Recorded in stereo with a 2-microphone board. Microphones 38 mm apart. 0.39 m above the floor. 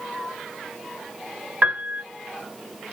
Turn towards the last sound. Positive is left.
turn(degrees=-40)  # may be behind; listen again after turning